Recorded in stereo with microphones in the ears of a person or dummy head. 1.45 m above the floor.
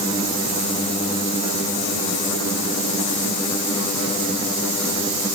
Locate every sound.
Only background noise.